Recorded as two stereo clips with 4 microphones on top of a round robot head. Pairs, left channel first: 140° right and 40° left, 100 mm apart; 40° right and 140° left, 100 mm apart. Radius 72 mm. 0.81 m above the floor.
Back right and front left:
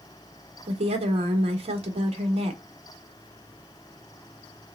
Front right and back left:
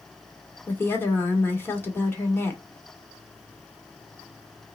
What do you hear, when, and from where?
0.7 s a woman speaking: 30° left, 1.5 m